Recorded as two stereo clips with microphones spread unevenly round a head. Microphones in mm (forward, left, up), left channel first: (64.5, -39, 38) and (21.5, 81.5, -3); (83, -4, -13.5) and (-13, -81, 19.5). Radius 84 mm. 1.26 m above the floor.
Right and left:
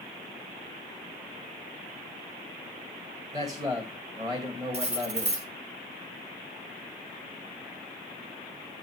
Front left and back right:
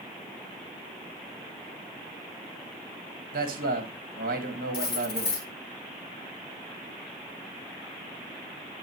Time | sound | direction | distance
3.3 | a man speaking | 175° left | 1.6 m
4.7 | cutlery clinking | 70° left | 1.4 m